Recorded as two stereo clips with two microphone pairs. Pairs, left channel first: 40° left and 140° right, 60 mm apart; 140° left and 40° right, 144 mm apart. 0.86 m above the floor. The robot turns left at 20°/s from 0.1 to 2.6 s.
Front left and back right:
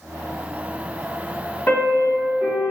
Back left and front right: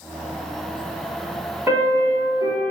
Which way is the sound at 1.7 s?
20° left.